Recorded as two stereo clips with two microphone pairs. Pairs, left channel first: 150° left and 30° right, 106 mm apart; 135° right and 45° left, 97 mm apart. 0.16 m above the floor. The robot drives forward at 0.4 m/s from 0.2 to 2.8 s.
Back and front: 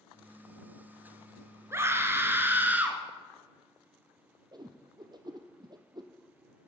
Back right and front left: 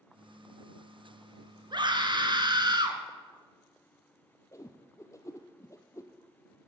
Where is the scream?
30° left, 2.5 m; by 3.0 s 40° left, 2 m.